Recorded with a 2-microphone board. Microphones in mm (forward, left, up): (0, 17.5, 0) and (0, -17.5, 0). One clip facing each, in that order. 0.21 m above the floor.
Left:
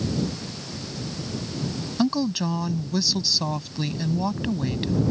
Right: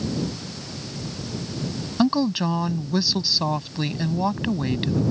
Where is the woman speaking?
20° right (ahead or behind).